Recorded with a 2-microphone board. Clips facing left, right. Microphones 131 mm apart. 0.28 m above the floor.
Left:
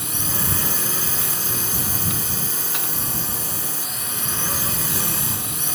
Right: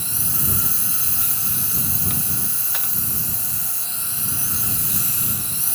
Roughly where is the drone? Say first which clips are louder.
Left 3 dB; left.